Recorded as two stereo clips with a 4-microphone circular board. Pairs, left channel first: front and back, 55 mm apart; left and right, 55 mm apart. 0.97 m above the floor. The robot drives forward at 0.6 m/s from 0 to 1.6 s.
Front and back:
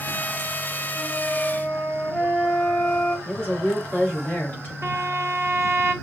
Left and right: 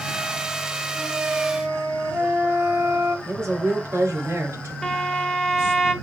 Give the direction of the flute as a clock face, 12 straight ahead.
2 o'clock.